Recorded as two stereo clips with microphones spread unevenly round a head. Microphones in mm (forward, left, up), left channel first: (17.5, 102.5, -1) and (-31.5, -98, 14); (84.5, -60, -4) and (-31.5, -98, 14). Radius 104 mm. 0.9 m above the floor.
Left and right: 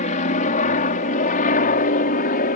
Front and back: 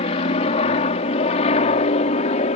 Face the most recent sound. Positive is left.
turn(degrees=35)